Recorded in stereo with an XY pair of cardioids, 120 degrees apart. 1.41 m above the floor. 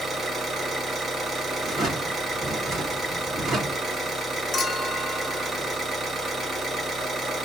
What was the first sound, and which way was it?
An engine running, 35° right.